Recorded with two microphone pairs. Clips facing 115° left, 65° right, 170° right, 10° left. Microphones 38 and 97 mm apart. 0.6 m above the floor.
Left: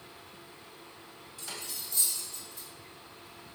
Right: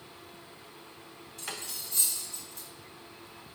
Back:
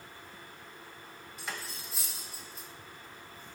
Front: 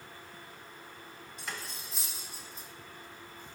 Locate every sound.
1.4 s cutlery clinking: 85° right, 1.0 m